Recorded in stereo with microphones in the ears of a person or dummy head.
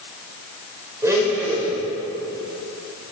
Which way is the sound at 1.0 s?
15° right (ahead or behind).